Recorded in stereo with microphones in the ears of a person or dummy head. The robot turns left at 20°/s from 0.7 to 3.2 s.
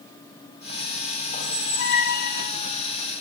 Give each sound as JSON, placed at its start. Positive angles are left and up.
{"t": 1.3, "sound": "a squeak", "side_deg": 45, "distance_m": 0.8}